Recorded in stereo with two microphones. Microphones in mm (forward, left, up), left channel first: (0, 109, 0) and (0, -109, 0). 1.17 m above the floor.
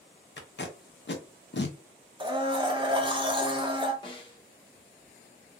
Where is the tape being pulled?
55° left (ahead or behind), 0.6 m.